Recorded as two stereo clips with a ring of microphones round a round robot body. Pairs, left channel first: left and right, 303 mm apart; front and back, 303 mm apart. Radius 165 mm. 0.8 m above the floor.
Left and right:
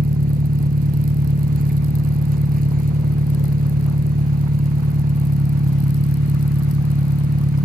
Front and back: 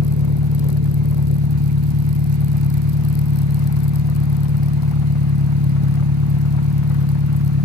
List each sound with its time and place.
0.0 s an engine running: 150° right